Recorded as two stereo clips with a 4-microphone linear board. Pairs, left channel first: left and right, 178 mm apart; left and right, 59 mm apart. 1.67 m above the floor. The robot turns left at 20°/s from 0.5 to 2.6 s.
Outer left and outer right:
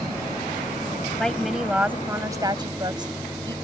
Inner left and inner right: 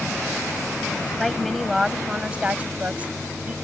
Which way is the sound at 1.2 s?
5° left (ahead or behind).